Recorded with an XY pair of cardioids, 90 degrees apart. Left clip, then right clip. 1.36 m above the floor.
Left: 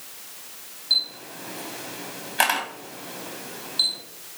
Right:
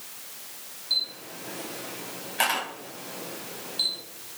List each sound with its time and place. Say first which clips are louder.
0.9 s a camera shutter: left 4 dB; 40° left, 3 m